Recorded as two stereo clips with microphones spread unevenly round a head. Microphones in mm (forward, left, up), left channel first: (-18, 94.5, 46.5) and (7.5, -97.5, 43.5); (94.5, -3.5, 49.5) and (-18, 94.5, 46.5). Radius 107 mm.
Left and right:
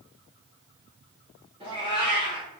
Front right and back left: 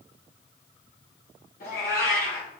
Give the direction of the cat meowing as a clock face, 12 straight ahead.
1 o'clock.